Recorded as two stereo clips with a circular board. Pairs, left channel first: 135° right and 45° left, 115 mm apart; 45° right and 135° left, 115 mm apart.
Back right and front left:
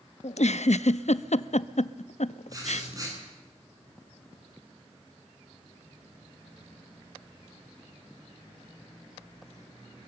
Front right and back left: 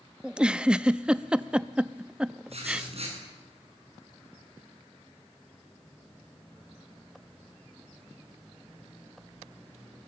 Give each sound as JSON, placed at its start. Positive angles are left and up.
{"t": 0.2, "sound": "a giggle", "azimuth_deg": -145, "distance_m": 0.6}
{"t": 2.5, "sound": "writing", "azimuth_deg": 105, "distance_m": 9.0}